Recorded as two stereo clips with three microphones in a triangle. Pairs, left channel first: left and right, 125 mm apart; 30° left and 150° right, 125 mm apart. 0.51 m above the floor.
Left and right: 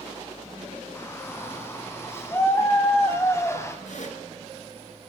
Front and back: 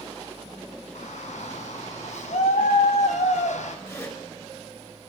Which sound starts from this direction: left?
A zipper, at 3.9 s.